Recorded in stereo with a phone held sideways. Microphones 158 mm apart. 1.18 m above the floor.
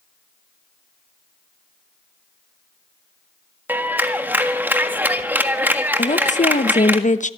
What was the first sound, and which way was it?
A clap, 10° right (ahead or behind).